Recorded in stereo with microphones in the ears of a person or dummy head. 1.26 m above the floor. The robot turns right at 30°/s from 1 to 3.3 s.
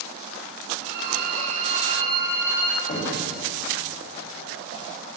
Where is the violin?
55° right, 7.5 m; by 2.8 s straight ahead, 7.5 m.